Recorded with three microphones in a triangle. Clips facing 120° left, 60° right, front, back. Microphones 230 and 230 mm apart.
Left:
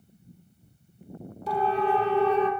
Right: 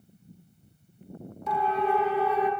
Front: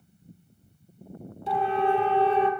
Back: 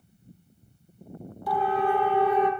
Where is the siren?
65° left, 4 m; by 2.5 s 60° left, 2.5 m.